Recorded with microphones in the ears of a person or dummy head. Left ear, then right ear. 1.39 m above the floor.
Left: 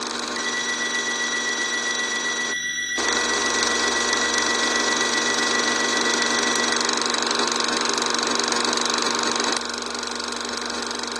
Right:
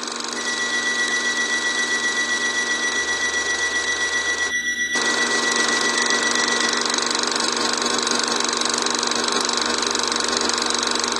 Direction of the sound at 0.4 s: 20° left (ahead or behind).